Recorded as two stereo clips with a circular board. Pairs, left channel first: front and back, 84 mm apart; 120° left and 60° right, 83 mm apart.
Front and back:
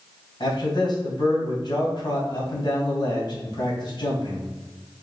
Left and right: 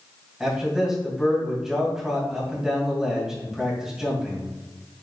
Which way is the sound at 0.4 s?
25° left.